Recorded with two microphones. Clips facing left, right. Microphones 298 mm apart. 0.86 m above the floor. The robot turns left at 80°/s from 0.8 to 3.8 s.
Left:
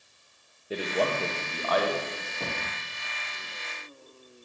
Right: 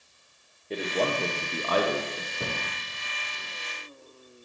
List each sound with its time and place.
0.7 s a man speaking: 10° left, 0.5 m; by 2.3 s 110° right, 0.5 m
2.4 s a cupboard door: 15° right (ahead or behind), 0.8 m; by 2.6 s 25° right (ahead or behind), 0.8 m